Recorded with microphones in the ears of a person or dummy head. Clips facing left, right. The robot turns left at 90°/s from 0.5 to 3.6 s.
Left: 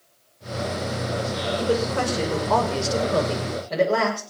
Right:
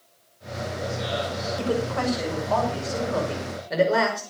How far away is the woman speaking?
About 5.5 m.